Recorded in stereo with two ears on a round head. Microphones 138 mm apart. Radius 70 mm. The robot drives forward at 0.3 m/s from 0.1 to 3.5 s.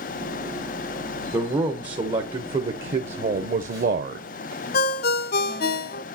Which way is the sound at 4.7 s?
70° left (ahead or behind).